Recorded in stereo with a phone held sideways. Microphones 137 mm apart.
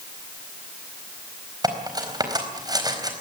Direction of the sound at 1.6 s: 30° right (ahead or behind).